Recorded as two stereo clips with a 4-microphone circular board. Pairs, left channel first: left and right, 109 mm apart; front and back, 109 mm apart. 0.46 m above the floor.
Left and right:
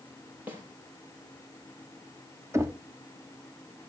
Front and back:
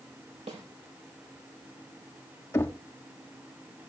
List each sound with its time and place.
0.5 s a snare drum: 160° right, 5.5 m
2.5 s knocking: 45° right, 0.8 m